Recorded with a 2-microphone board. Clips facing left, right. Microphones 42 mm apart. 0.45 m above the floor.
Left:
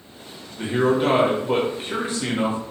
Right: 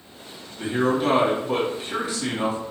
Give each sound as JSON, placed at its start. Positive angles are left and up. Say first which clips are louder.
{"t": 0.6, "sound": "a man speaking", "louder": "left 2 dB", "side_deg": 35, "distance_m": 1.2}